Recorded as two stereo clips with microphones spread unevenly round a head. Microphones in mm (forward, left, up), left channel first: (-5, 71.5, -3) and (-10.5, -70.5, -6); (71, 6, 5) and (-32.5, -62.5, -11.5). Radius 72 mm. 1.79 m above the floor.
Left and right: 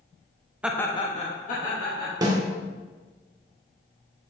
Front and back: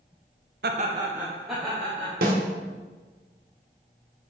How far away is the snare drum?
About 1.3 m.